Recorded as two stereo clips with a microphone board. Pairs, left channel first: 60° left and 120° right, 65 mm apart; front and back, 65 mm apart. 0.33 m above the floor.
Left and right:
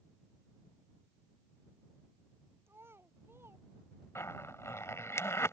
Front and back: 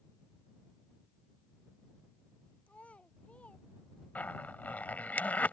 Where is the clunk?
I don't hear a clunk.